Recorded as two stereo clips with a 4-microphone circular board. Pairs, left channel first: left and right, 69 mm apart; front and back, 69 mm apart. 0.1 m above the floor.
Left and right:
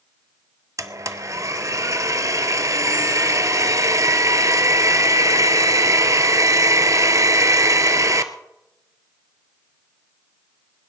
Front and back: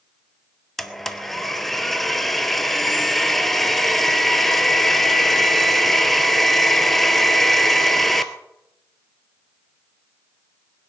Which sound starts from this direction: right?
A blender, at 0.8 s.